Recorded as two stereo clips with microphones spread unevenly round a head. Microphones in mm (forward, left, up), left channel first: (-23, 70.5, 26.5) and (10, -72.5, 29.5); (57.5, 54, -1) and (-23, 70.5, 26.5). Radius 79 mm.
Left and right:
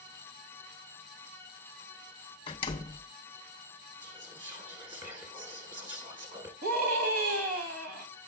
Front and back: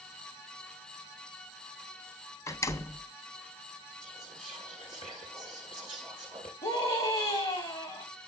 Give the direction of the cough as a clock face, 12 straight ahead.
No cough in this recording.